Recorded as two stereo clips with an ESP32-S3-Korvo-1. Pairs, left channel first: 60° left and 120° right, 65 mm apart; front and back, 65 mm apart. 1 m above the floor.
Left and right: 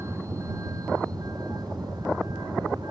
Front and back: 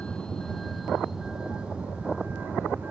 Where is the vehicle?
75° right; by 2.9 s 115° right.